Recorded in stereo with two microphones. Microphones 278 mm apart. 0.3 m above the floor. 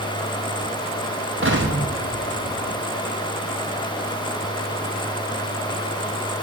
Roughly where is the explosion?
Right.